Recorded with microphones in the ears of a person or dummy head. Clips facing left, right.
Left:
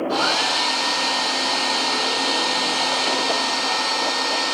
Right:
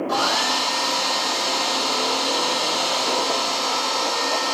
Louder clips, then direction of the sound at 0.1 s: Left 1 dB; 75° right (ahead or behind).